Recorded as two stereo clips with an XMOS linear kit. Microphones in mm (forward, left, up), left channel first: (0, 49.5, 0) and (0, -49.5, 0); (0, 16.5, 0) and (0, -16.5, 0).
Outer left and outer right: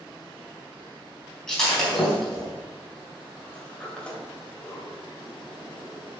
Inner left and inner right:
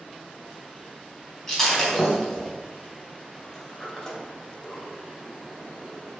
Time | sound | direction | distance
1.5 | breaking glass | 5° left (ahead or behind) | 3.5 m
3.4 | a sliding door | 10° left (ahead or behind) | 2.5 m